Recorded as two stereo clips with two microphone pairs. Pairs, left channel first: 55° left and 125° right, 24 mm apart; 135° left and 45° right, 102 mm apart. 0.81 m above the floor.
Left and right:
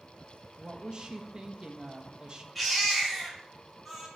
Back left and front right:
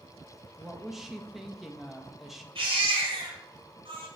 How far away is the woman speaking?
About 0.7 m.